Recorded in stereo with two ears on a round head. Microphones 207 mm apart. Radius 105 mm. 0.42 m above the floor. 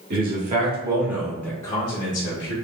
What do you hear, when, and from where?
0.1 s a man speaking: 40° right (ahead or behind), 1.1 m; by 2.5 s 45° left (ahead or behind), 1.2 m